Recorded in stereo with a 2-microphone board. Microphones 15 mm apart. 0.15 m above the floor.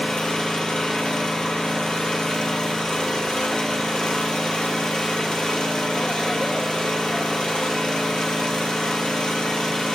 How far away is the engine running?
About 3 m.